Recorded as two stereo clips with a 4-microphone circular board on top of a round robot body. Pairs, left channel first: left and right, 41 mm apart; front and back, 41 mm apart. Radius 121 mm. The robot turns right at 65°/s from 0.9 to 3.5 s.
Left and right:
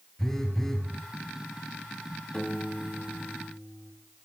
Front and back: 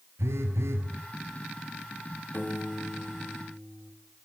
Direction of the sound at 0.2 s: 170° left.